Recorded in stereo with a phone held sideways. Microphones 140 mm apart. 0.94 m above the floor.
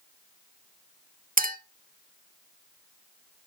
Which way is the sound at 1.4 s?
85° right.